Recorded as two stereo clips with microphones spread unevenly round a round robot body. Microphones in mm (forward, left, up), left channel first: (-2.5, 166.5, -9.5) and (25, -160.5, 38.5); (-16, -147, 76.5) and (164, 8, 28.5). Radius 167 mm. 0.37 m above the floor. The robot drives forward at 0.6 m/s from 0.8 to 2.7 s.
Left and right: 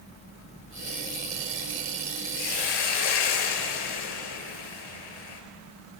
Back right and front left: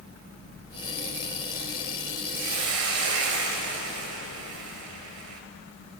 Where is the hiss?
75° left, 3.5 m.